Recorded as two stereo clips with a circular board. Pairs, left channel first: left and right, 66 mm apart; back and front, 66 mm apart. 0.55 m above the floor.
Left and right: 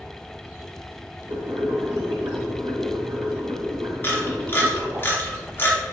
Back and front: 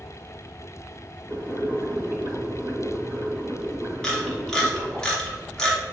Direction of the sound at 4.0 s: 110° left.